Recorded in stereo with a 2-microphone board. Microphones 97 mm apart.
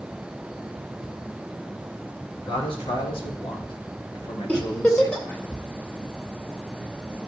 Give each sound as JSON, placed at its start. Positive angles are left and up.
{"t": 2.5, "sound": "a man speaking", "side_deg": 75, "distance_m": 3.0}
{"t": 4.5, "sound": "a giggle", "side_deg": 15, "distance_m": 1.8}